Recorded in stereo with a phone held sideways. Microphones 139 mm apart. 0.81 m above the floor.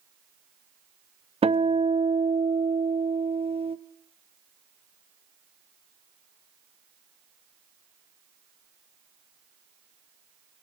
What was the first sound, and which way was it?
A guitar, 45° right (ahead or behind).